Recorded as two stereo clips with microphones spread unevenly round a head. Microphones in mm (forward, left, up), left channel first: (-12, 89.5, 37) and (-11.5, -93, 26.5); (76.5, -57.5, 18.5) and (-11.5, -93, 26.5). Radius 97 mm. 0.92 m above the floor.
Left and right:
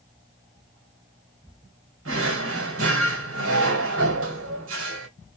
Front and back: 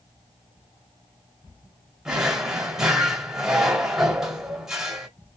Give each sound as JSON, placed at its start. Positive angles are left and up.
{"t": 2.0, "sound": "a drawer", "azimuth_deg": -75, "distance_m": 1.6}